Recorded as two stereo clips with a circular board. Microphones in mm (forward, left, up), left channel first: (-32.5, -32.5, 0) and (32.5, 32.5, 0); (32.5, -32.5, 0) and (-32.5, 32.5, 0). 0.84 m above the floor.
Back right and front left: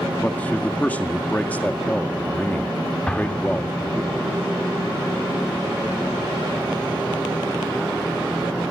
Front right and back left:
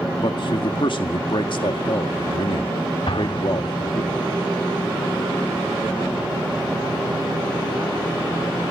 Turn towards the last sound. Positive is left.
turn(degrees=-55)